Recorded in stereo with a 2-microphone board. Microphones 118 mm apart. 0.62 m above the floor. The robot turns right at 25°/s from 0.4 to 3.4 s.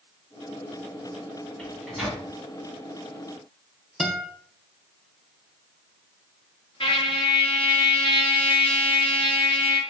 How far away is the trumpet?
About 0.6 m.